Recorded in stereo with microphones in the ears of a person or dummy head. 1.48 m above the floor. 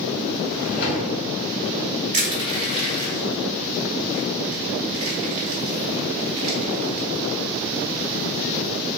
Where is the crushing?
45° right (ahead or behind), 1.5 m.